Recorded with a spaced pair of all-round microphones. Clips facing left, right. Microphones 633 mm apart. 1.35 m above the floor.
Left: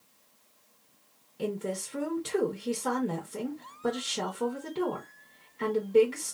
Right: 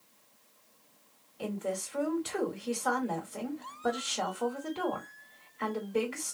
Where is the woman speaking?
65° left (ahead or behind), 1.1 m.